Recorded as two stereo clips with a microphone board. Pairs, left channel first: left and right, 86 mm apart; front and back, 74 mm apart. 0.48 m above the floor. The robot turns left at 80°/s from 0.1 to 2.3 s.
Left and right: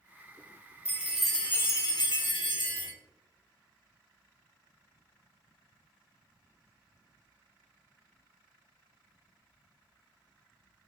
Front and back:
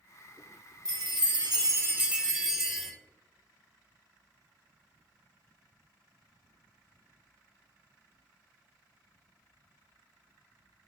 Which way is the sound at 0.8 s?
150° right.